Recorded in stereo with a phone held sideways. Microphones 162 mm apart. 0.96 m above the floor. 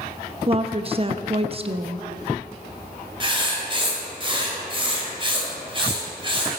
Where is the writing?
30° right (ahead or behind), 2.5 m.